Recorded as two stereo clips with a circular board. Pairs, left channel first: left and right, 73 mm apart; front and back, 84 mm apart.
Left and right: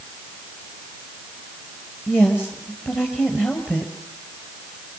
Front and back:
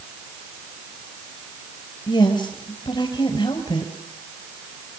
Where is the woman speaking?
30° left, 4 m.